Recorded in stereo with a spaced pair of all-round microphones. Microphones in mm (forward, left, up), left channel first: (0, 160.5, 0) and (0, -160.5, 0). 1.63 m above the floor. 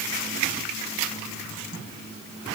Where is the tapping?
I don't hear tapping.